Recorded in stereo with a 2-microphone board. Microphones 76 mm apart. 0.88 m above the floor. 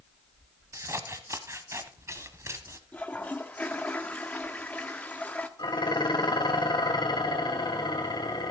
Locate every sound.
0.7 s scissors: 40° right (ahead or behind), 1.3 m
2.9 s a toilet flushing: 20° left (ahead or behind), 1.2 m
5.6 s dishes clattering: 70° left (ahead or behind), 1.8 m